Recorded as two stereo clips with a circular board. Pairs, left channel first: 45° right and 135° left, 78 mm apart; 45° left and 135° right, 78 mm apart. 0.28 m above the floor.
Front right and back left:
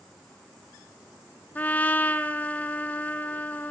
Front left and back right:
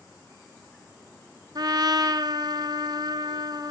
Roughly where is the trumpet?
Behind right.